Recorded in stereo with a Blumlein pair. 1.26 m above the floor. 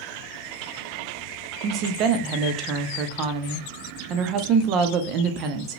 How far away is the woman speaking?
About 0.5 m.